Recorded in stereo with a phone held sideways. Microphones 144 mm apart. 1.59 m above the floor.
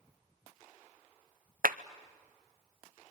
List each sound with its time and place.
1.6 s a clap: 75° right (ahead or behind), 0.6 m